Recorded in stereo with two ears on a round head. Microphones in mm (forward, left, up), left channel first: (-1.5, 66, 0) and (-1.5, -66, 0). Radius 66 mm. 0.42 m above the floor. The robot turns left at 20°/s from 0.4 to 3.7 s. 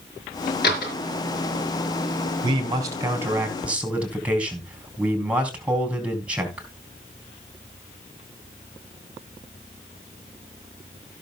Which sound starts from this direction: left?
A door slam, at 0.6 s.